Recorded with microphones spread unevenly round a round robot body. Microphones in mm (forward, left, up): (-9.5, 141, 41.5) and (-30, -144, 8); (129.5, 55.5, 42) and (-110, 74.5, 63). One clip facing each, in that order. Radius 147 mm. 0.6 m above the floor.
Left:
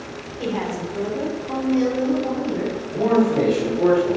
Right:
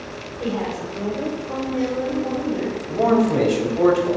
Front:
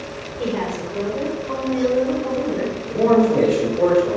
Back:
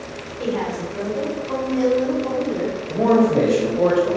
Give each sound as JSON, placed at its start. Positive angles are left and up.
{"t": 0.4, "sound": "a woman speaking", "azimuth_deg": 40, "distance_m": 3.0}
{"t": 2.9, "sound": "a man speaking", "azimuth_deg": -85, "distance_m": 3.0}